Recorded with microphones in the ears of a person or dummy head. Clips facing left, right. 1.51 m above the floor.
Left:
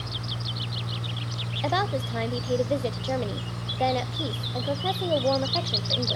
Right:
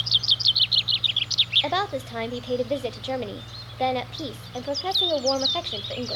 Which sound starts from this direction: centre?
A woman speaking, at 1.6 s.